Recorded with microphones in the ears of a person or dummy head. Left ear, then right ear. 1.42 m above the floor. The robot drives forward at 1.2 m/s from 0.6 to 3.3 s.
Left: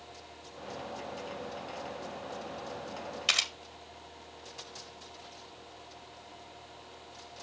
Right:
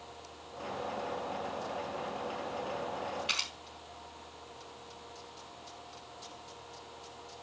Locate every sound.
3.3 s a camera shutter: 80° left, 1.9 m; by 3.5 s 75° left (ahead or behind), 1.9 m